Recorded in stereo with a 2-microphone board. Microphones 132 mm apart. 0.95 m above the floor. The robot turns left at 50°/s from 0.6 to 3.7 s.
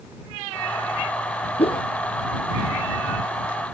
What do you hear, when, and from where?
1.6 s a whoosh: 50° left (ahead or behind); by 1.9 s 35° left (ahead or behind)